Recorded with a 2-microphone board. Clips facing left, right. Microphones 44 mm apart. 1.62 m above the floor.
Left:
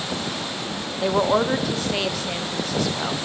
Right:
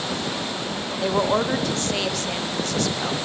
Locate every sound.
1.0 s a woman speaking: 5° left (ahead or behind), 0.6 m